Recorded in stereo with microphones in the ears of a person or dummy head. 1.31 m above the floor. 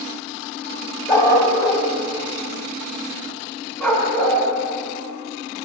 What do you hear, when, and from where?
1.1 s a dog barking: 15° left (ahead or behind), 3 m; by 4.4 s centre (ahead or behind), 5 m